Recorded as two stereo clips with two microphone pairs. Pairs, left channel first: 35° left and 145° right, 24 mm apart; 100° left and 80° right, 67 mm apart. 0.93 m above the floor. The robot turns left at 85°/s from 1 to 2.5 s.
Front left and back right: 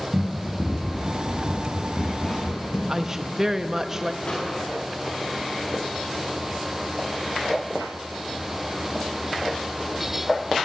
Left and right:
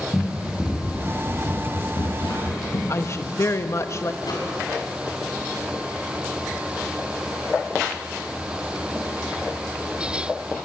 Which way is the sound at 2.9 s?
140° left.